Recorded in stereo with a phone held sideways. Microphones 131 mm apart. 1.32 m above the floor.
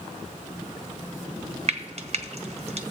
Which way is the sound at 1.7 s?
50° right (ahead or behind).